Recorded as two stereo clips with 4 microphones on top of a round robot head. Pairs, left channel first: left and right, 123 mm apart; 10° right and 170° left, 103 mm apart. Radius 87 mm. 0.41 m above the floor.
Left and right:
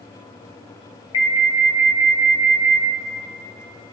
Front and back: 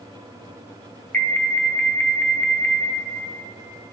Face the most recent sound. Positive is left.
turn(degrees=60)